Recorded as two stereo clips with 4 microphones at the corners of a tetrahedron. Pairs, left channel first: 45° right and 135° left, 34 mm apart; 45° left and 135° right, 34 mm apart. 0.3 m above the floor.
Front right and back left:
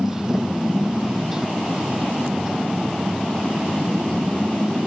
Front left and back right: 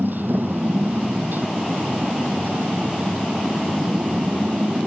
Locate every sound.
0.0 s a motorcycle: 155° right